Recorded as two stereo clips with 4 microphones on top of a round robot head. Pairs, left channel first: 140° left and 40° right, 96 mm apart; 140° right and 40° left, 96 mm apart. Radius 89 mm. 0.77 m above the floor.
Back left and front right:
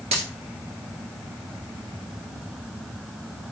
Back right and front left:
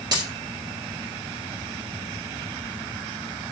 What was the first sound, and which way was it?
A dropped coin, 15° right.